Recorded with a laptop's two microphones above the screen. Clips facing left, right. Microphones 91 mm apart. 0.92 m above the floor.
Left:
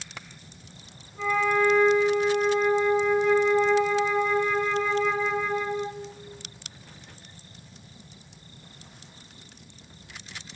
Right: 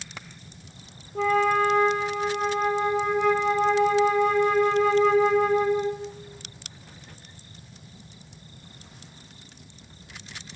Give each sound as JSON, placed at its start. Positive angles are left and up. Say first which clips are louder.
{"t": 1.1, "sound": "a flute", "louder": "right 3 dB", "side_deg": -65, "distance_m": 0.6}